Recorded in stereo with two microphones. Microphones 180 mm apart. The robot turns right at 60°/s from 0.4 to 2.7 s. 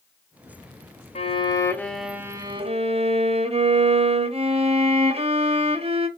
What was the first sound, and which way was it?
A violin, 130° left.